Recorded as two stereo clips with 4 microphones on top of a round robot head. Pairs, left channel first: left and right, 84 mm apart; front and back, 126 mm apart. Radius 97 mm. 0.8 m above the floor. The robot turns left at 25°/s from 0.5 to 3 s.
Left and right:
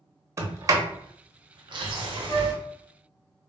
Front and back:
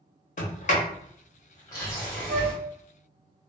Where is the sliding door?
35° right, 0.6 m; by 2.5 s 90° right, 0.6 m.